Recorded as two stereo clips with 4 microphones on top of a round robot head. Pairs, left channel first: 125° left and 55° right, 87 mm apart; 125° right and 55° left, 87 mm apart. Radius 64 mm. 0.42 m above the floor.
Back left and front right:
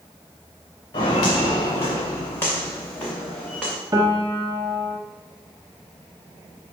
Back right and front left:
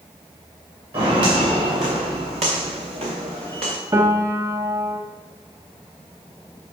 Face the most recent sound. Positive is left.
turn(degrees=0)